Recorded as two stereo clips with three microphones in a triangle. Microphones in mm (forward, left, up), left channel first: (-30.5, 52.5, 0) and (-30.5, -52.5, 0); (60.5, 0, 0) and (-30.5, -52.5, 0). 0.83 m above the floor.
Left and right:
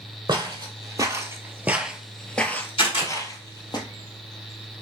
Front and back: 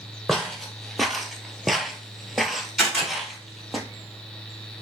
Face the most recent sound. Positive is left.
turn(degrees=120)